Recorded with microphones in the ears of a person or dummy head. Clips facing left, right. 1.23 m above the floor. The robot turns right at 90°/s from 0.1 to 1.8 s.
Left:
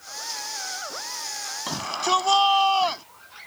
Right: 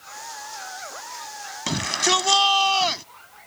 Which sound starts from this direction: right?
A shout, at 1.7 s.